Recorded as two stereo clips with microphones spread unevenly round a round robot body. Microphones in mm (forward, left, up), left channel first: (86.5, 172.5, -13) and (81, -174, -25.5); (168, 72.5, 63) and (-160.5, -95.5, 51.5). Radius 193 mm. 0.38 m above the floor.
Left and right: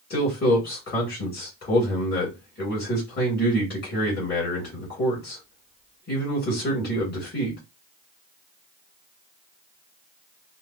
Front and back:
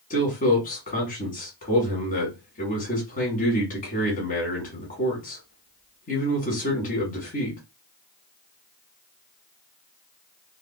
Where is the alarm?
No alarm in this recording.